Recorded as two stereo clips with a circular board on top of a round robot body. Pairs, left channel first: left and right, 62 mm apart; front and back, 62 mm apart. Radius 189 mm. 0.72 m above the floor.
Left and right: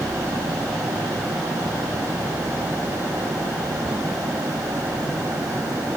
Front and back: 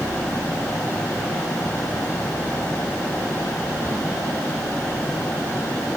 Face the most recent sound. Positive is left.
No sound to turn to.